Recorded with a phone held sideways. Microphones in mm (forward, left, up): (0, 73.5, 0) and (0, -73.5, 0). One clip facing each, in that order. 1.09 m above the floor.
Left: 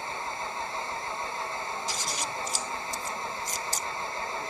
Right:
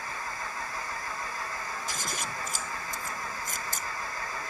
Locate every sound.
0.0 s an engine running: 25° left (ahead or behind)
1.9 s scissors: 55° right (ahead or behind)